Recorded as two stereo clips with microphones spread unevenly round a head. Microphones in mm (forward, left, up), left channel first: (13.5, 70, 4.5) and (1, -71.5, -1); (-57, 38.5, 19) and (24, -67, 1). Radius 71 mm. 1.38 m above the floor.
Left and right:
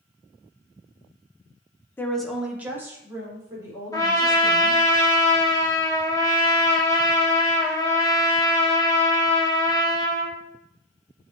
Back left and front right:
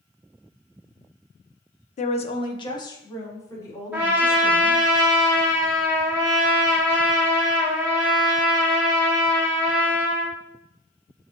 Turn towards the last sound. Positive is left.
turn(degrees=30)